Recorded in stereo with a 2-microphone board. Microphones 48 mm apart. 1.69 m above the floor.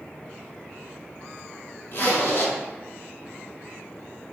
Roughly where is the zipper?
Left.